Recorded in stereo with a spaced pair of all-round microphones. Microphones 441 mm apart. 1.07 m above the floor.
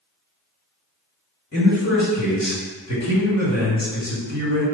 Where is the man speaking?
35° left (ahead or behind), 1.7 m.